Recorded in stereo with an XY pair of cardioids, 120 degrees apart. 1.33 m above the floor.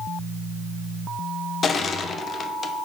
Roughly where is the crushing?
Ahead left.